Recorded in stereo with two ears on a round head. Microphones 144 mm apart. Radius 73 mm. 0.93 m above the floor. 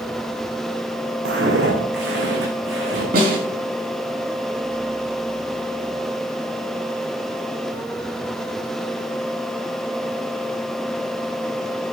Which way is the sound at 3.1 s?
65° right (ahead or behind).